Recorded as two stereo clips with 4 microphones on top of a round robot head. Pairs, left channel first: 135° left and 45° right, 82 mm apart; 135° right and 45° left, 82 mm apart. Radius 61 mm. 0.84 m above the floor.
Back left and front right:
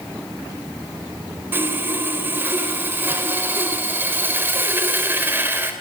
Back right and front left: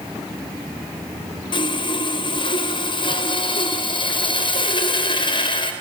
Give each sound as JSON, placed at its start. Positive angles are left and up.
{"t": 1.5, "sound": "sawing", "azimuth_deg": -110, "distance_m": 3.5}